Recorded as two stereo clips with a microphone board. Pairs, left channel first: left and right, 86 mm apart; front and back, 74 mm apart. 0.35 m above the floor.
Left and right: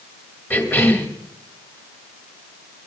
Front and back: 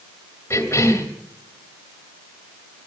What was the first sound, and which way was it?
A cough, 35° left.